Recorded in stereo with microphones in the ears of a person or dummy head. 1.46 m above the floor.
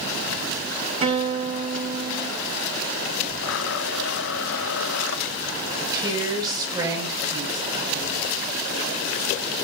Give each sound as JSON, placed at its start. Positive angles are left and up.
{"t": 1.0, "sound": "a guitar", "side_deg": -35, "distance_m": 2.5}
{"t": 3.4, "sound": "a blender", "side_deg": 65, "distance_m": 1.0}
{"t": 5.8, "sound": "a woman speaking", "side_deg": -20, "distance_m": 5.5}